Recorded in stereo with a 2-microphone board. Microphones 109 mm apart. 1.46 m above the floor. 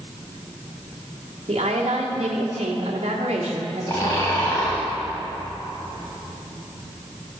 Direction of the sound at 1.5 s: 85° right.